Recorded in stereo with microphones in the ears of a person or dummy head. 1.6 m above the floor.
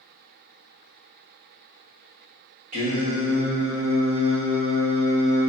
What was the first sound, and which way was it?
Singing, 45° right (ahead or behind).